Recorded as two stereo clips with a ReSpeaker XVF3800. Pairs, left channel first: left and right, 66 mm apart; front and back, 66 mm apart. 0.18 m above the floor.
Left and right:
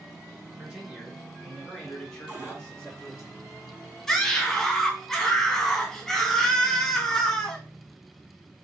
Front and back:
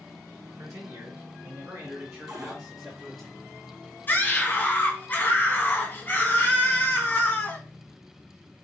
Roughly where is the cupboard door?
Behind right.